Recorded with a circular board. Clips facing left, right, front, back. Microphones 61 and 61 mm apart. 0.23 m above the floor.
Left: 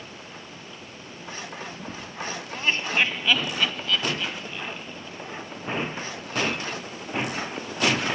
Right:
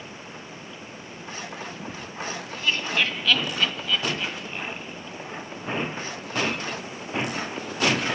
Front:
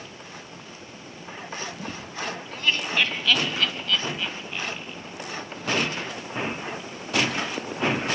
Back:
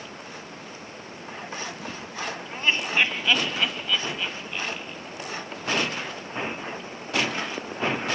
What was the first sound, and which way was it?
Laughter, 125° left.